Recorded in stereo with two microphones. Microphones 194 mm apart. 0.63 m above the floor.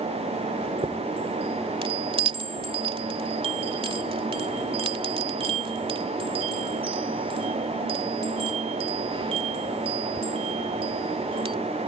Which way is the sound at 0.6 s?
30° right (ahead or behind).